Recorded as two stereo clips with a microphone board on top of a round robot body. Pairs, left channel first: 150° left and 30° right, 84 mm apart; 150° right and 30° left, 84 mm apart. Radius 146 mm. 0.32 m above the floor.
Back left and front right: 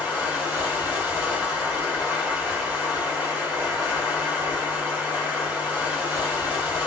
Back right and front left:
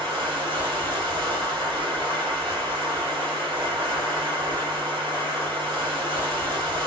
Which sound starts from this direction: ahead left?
Running water, at 0.0 s.